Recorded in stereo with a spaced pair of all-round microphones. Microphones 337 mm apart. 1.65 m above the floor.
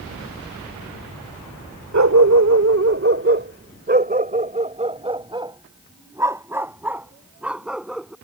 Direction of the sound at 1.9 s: 55° right (ahead or behind).